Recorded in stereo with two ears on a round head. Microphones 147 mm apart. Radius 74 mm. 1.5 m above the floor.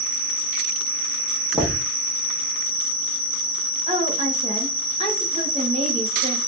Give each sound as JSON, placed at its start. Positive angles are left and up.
{"t": 0.0, "sound": "an insect", "side_deg": -5, "distance_m": 2.0}
{"t": 1.5, "sound": "knocking", "side_deg": -10, "distance_m": 1.6}
{"t": 3.9, "sound": "a woman speaking", "side_deg": -35, "distance_m": 1.9}